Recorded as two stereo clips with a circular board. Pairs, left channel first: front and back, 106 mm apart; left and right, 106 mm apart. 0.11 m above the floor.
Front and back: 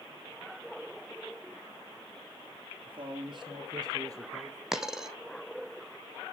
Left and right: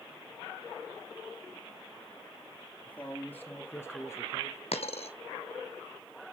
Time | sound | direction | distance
2.9 | a man speaking | 160° left | 3.5 m
4.7 | a dropped coin | 95° left | 1.2 m